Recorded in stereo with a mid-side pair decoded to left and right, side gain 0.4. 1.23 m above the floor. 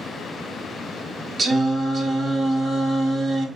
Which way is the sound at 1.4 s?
55° right.